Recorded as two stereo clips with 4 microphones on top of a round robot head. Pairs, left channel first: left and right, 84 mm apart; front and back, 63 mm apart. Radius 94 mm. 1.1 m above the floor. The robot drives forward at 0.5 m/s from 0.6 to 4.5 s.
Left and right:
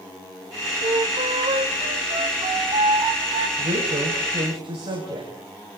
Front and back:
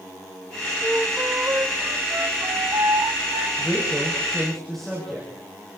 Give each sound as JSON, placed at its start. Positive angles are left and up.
{"t": 0.8, "sound": "a flute", "azimuth_deg": -105, "distance_m": 2.0}
{"t": 3.6, "sound": "a woman speaking", "azimuth_deg": -80, "distance_m": 7.5}